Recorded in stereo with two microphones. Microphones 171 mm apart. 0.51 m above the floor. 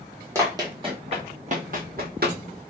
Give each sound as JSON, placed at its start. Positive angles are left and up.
{"t": 0.3, "sound": "running footsteps", "side_deg": -15, "distance_m": 1.2}